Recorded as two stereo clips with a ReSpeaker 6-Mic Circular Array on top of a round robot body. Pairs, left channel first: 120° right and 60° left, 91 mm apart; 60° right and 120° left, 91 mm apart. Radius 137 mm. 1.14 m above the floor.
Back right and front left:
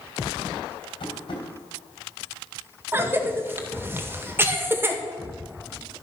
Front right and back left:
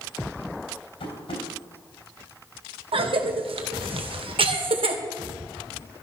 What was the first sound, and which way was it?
Tapping, 85° right.